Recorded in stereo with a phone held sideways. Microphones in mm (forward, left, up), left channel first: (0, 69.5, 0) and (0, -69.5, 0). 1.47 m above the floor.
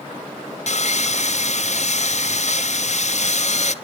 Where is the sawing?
55° left (ahead or behind), 0.7 m.